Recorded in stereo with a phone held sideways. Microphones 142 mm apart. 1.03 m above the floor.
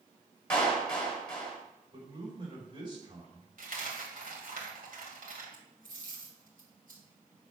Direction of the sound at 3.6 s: 75° right (ahead or behind).